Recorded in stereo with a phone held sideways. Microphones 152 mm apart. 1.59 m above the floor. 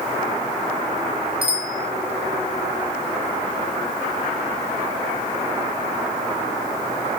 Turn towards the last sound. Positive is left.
turn(degrees=-80)